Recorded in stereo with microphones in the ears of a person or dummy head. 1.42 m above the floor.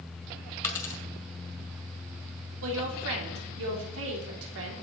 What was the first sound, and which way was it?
A dropped coin, 20° left (ahead or behind).